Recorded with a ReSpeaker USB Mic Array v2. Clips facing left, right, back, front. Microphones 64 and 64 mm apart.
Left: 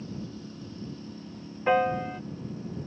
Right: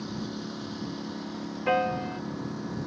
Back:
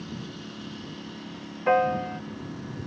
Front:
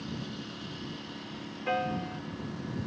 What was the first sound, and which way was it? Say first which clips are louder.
A lawn mower: right 4 dB, back 1 dB; 90° right.